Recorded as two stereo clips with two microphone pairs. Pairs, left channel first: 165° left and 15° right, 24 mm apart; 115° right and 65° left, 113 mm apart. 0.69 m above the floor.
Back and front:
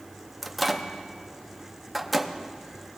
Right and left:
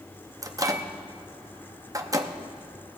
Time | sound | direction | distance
0.4 | a microwave | 70° left | 0.7 m